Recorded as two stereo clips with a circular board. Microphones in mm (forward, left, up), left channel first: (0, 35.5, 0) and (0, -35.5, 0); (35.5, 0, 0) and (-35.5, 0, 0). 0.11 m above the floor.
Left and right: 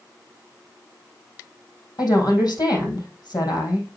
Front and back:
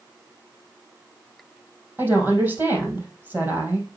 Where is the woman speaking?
115° left, 3.5 m.